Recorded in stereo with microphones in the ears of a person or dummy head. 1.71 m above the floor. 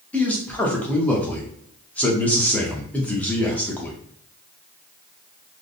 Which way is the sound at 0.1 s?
10° left (ahead or behind).